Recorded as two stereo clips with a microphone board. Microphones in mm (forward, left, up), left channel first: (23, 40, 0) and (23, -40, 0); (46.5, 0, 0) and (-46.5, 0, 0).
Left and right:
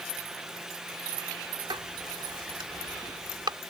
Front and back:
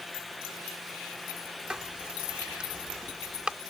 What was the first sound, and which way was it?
Writing, 100° right.